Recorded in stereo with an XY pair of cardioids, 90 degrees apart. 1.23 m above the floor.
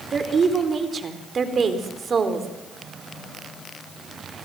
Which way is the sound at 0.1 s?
45° right.